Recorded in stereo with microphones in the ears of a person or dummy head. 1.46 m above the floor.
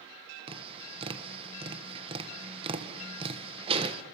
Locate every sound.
0.5 s tapping: 30° right (ahead or behind), 1.5 m